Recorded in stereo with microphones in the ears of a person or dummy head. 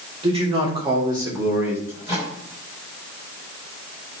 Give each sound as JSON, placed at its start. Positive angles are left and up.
{"t": 0.2, "sound": "a man speaking", "side_deg": -40, "distance_m": 3.5}
{"t": 1.9, "sound": "a microwave", "side_deg": -20, "distance_m": 7.0}